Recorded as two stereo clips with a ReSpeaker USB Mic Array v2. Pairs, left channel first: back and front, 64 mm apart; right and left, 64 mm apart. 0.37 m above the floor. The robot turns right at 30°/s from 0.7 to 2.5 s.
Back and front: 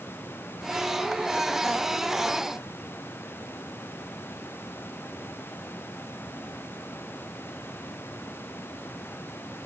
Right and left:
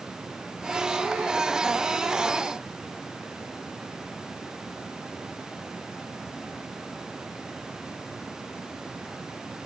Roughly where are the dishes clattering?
No dishes clattering in this recording.